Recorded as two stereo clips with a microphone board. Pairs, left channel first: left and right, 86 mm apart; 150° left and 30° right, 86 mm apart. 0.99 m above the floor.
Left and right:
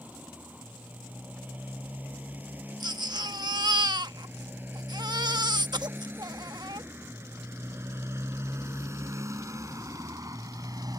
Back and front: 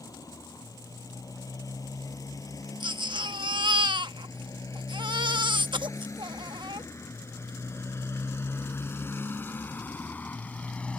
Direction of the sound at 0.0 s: 165° right.